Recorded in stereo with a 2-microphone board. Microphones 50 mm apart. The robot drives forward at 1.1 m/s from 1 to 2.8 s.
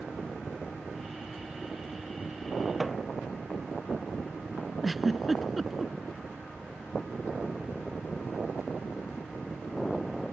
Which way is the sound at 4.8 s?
5° right (ahead or behind).